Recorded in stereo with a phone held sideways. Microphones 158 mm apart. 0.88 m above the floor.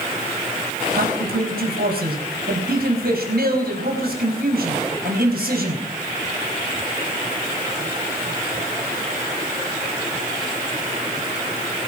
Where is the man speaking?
80° right, 4.5 m.